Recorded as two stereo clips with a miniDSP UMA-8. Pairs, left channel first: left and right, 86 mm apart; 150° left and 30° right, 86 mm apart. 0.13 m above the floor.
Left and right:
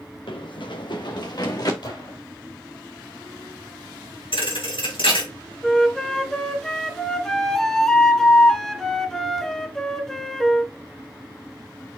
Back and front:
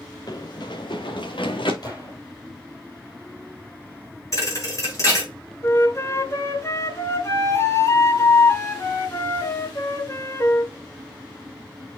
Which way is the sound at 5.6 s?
170° left.